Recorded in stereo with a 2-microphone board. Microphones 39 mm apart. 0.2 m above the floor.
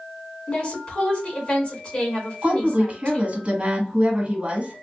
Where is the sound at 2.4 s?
35° right (ahead or behind), 1.5 m.